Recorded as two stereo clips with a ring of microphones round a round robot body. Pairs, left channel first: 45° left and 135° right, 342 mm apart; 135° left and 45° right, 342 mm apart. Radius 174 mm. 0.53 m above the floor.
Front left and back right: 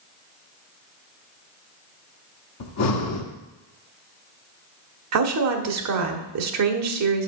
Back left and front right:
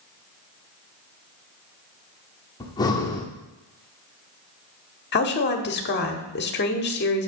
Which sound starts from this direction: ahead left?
Breathing, at 2.6 s.